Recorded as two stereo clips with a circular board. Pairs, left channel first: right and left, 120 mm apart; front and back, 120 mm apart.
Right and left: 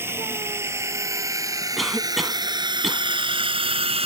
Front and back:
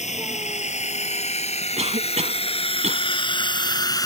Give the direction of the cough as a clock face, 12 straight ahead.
6 o'clock.